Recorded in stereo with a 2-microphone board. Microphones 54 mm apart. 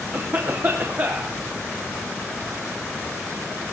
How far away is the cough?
About 1.0 m.